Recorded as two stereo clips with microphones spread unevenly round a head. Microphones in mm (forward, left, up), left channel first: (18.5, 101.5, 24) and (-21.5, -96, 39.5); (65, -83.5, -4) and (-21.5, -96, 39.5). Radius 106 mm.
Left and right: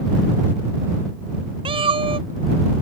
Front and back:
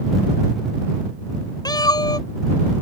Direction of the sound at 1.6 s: 35° right.